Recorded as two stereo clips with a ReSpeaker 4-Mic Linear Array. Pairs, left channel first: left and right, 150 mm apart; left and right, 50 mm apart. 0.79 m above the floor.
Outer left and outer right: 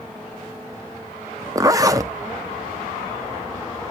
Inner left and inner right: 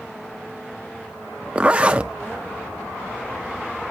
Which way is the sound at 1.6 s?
25° right (ahead or behind).